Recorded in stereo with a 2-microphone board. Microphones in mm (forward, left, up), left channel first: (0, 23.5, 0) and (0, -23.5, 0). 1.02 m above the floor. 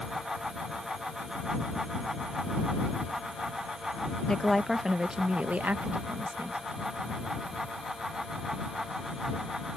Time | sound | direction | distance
4.3 | a woman speaking | 10° left (ahead or behind) | ?